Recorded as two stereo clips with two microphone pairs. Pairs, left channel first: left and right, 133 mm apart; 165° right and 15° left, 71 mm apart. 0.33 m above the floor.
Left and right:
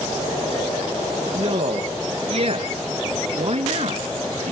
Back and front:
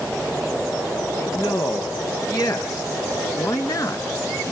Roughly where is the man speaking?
Behind right.